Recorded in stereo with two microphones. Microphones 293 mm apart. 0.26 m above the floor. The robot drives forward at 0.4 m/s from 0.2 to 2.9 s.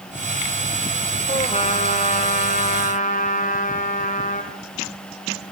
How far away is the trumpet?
About 4 m.